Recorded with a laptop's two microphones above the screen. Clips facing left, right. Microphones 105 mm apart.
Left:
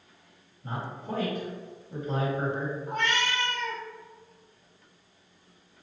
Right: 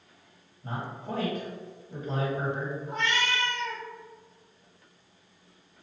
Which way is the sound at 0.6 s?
25° right (ahead or behind).